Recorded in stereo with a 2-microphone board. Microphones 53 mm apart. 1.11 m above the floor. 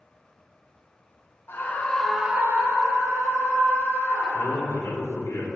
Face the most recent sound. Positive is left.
turn(degrees=60)  # may be behind; listen again after turning